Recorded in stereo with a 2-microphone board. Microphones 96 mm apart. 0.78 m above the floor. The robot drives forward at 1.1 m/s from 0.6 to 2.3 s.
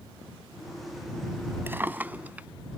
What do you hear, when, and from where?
1.7 s a drawer: 20° right (ahead or behind); by 2.5 s 15° right (ahead or behind)